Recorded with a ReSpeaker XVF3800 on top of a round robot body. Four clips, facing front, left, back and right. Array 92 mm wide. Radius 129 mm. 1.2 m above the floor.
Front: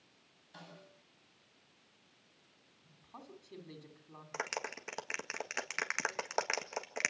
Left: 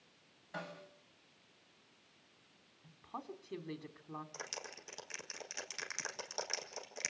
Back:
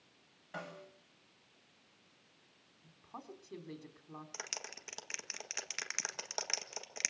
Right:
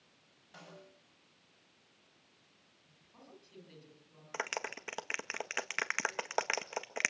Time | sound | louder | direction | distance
0.5 | a snare drum | left 7 dB, back 8 dB | 145° left | 6 m
2.8 | a woman speaking | left 13 dB, back 3 dB | 110° left | 3.5 m
4.3 | a clap | right 9 dB, front 13 dB | 55° right | 1.8 m